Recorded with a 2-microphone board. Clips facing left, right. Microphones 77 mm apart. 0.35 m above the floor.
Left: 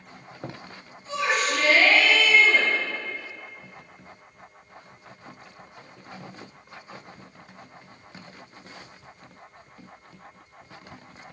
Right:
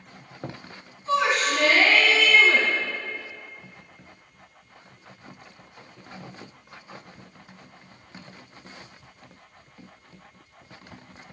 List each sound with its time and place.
1.1 s a shout: 60° right (ahead or behind), 3 m